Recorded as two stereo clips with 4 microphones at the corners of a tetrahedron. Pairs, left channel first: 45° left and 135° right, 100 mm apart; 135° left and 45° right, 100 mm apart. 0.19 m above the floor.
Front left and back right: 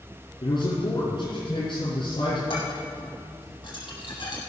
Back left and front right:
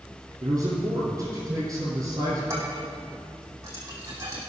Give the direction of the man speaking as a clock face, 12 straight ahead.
12 o'clock.